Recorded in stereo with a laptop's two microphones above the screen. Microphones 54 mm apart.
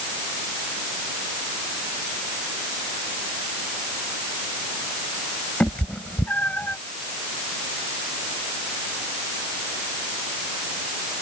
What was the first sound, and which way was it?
A cat meowing, 25° left (ahead or behind).